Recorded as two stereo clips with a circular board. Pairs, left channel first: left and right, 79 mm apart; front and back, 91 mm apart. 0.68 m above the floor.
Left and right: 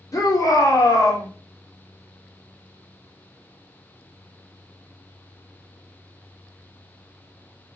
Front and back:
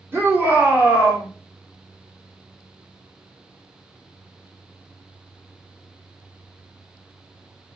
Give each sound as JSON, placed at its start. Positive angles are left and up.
{"t": 0.1, "sound": "a shout", "azimuth_deg": 120, "distance_m": 2.0}